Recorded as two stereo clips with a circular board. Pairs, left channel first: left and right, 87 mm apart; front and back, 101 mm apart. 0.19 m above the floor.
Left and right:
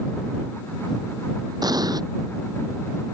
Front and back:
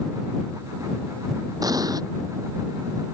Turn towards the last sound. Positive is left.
turn(degrees=-130)